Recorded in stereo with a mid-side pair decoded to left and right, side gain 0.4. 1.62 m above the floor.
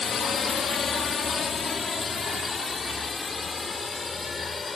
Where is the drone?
50° left; by 4.8 s 25° left.